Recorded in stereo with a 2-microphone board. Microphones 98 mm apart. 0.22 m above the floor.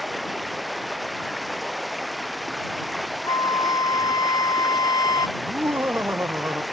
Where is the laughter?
25° right (ahead or behind).